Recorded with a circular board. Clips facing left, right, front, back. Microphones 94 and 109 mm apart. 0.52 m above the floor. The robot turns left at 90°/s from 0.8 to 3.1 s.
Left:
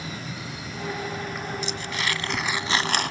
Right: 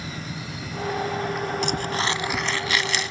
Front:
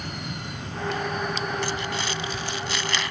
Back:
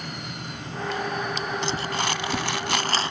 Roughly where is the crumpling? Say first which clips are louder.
Right 5 dB, back 2 dB; right.